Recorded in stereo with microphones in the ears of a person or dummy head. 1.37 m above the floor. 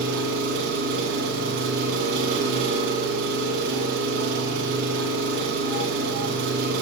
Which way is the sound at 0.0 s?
60° right (ahead or behind).